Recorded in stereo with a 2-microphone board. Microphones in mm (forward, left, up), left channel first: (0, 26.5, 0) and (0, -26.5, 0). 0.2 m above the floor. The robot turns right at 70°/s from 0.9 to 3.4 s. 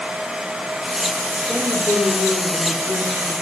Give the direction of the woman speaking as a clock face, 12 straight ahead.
11 o'clock.